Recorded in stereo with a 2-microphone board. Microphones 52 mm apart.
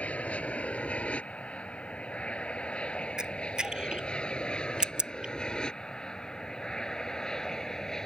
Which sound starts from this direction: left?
An aircraft, at 0.0 s.